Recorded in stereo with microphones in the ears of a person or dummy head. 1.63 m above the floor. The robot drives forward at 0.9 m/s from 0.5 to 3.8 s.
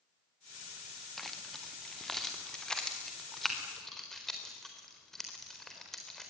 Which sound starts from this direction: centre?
Keys jangling, at 1.2 s.